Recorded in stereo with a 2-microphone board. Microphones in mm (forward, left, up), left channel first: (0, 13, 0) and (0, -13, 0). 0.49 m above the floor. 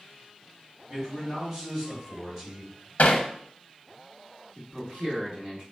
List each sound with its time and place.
0.9 s a man speaking: 10° right (ahead or behind), 1.8 m
3.0 s hammering: 65° left (ahead or behind), 1.0 m
4.5 s a man speaking: 10° left (ahead or behind), 1.6 m